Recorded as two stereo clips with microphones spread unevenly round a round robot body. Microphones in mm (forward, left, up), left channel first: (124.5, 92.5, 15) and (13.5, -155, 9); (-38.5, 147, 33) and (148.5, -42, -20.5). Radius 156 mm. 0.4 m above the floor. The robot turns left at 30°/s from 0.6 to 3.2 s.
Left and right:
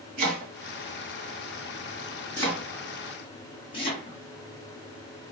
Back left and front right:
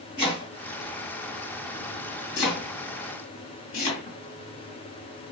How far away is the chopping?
About 2.5 m.